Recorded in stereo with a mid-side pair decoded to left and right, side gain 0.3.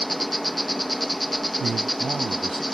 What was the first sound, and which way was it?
An insect, 5° left.